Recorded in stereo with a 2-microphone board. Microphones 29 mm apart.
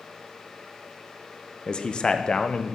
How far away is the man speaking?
About 0.6 m.